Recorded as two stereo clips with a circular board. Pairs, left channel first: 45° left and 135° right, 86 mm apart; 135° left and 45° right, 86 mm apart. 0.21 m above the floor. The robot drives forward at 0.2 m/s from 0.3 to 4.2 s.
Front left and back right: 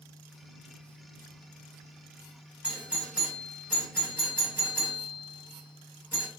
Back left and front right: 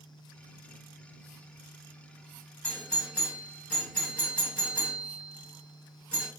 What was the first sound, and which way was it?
A doorbell, 175° right.